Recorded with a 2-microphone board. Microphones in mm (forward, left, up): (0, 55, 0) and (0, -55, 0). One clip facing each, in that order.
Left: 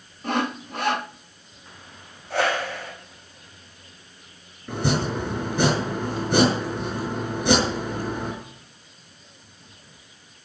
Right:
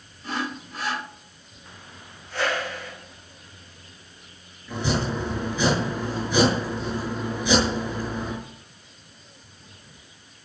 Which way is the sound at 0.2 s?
60° left (ahead or behind).